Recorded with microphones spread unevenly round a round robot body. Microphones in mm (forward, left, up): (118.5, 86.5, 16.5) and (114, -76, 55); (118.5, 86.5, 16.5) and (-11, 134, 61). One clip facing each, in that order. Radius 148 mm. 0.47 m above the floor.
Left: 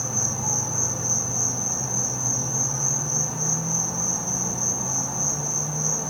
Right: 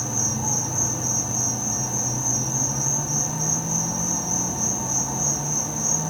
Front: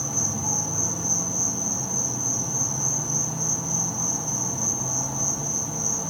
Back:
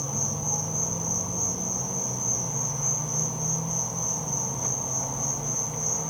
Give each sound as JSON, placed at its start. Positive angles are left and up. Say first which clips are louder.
{"t": 0.0, "sound": "an insect", "louder": "right 3 dB, front 2 dB", "azimuth_deg": -35, "distance_m": 3.0}